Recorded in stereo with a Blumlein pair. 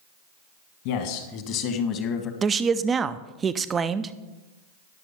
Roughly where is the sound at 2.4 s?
Ahead.